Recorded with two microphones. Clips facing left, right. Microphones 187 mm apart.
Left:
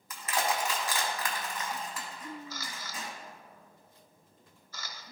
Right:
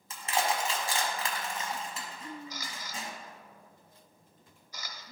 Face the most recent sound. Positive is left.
turn(degrees=-15)  # may be behind; listen again after turning